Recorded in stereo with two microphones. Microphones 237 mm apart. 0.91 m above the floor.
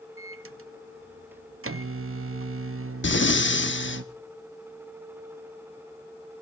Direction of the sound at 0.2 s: 65° right (ahead or behind).